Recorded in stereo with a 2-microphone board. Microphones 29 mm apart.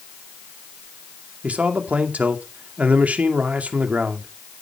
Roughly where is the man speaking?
Right.